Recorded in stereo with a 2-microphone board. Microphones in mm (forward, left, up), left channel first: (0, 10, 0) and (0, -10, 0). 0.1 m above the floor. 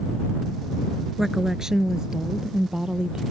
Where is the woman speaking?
20° right (ahead or behind); by 3.2 s 45° right (ahead or behind).